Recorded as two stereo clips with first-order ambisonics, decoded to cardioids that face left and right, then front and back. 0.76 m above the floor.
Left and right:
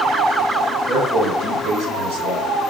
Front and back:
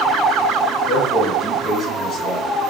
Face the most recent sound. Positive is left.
turn(degrees=-75)